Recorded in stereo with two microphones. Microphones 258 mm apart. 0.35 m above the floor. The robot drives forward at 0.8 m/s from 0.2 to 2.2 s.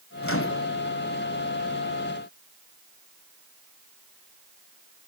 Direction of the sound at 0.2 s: 55° left (ahead or behind).